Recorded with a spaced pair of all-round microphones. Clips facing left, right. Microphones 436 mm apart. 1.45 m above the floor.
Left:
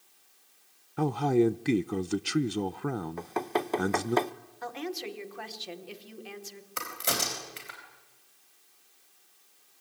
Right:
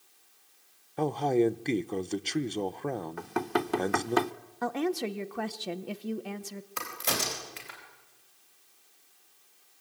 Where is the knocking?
25° right (ahead or behind), 0.7 m.